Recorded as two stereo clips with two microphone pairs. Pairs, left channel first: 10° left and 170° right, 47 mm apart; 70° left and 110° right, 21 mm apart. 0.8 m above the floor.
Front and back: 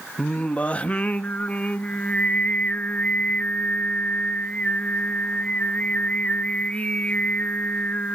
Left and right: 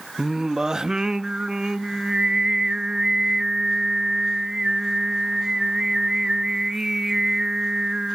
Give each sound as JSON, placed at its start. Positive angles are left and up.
{"t": 0.2, "sound": "singing", "azimuth_deg": -50, "distance_m": 0.6}